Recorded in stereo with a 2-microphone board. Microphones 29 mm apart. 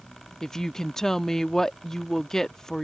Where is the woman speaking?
20° left (ahead or behind).